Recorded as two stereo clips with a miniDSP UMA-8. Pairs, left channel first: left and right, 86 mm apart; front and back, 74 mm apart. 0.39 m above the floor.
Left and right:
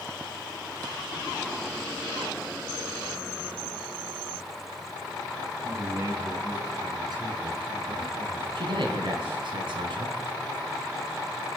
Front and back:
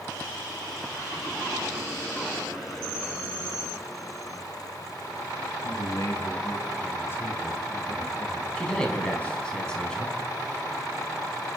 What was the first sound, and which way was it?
A man speaking, 30° right.